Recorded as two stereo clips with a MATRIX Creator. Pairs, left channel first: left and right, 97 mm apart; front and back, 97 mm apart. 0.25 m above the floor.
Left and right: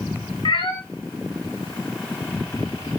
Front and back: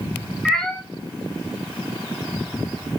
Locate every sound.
0.5 s a cat meowing: 85° left, 1.2 m